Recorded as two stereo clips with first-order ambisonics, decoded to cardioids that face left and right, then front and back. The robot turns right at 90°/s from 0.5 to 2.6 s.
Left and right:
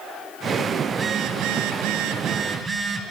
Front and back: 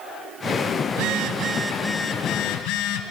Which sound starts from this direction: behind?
A phone buzzing, at 0.9 s.